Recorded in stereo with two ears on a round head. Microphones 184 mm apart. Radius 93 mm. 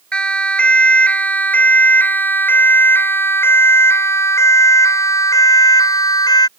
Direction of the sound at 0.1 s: 5° left (ahead or behind).